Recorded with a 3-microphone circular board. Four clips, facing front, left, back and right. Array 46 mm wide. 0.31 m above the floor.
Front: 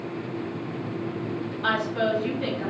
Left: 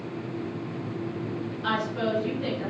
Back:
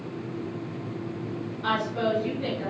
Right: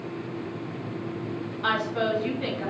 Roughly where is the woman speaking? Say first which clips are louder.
Right 2 dB, front 1 dB; ahead right.